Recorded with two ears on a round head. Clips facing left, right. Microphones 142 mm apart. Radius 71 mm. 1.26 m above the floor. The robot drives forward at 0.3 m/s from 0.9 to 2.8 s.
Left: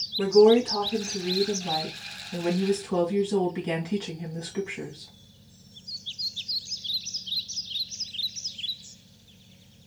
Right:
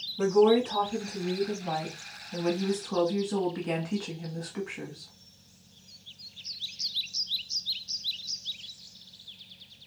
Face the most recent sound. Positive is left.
turn(degrees=20)  # may be behind; listen again after turning